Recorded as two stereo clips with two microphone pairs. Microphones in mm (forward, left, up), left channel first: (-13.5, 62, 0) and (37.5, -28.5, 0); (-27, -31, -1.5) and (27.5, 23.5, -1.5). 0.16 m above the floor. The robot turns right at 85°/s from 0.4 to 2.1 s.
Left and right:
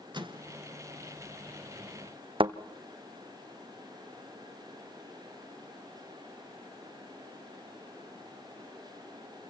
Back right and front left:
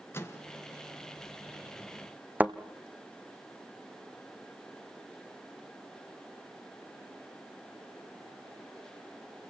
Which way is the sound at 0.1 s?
85° right.